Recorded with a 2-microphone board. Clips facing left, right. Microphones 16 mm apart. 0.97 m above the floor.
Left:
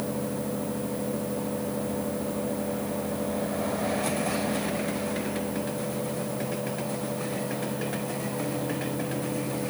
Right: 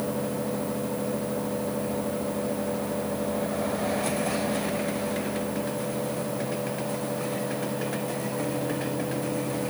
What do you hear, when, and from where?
Only background noise.